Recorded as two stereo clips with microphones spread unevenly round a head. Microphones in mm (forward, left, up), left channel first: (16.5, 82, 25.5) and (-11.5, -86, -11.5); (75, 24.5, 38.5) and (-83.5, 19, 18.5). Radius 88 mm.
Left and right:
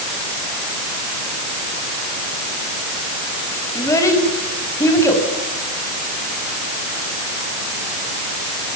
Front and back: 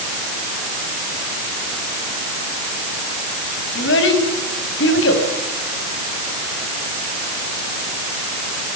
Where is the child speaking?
10° left, 6.5 m.